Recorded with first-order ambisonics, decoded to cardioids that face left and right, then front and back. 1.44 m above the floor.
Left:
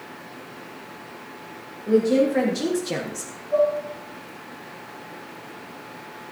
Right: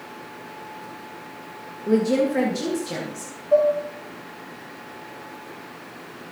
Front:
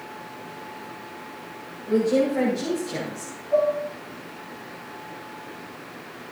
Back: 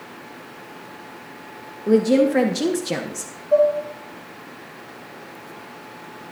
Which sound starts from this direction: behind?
A woman speaking, at 1.9 s.